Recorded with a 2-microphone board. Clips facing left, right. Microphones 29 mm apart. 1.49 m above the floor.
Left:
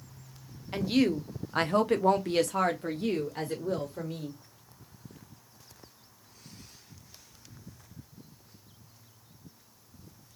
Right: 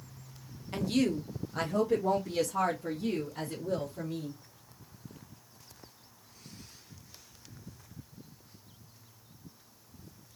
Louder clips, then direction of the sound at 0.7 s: Left 3 dB; 20° left (ahead or behind).